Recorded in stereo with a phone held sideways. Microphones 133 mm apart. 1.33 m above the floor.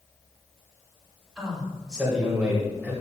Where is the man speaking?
5° right (ahead or behind), 3.5 m; by 2.9 s 15° right (ahead or behind), 3 m.